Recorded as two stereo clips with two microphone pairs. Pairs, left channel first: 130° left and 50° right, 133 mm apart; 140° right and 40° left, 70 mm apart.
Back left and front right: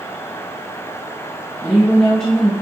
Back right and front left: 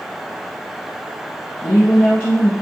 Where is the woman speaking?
145° right, 1.2 m.